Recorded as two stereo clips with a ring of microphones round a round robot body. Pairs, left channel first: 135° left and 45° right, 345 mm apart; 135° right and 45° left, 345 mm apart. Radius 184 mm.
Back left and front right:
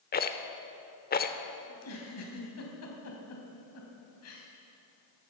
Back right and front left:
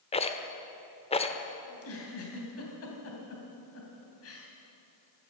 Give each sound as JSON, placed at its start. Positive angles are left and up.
{"t": 0.1, "sound": "a rattle", "azimuth_deg": 170, "distance_m": 1.0}
{"t": 1.7, "sound": "a giggle", "azimuth_deg": 180, "distance_m": 3.0}